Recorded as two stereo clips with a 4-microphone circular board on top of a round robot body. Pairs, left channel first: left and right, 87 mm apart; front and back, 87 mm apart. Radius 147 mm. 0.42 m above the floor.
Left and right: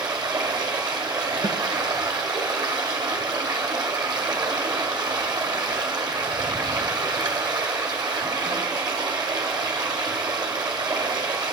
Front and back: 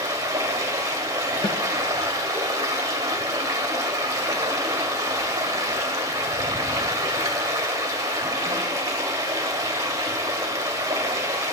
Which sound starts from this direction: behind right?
Running water, at 0.0 s.